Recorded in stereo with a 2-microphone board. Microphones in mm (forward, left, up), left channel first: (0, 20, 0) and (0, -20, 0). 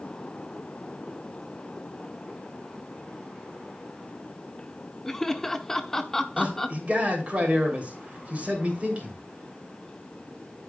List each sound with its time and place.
5.0 s laughter: 10° left (ahead or behind), 0.9 m
6.4 s a man speaking: 40° right (ahead or behind), 3 m